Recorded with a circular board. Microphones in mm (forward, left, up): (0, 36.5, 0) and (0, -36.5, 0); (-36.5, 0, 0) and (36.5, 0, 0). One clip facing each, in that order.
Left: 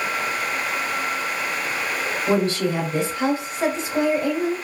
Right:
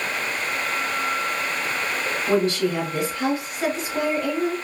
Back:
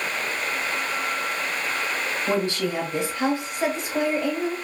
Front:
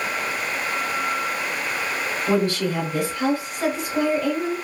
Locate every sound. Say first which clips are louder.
2.3 s a woman speaking: even, front 4 dB; 125° left, 1.2 m